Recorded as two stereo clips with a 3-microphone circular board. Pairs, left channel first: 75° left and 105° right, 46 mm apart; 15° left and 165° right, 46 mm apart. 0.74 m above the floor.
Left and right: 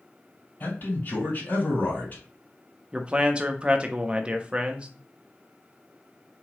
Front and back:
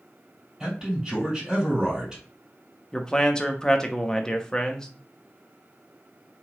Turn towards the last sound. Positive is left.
turn(degrees=-55)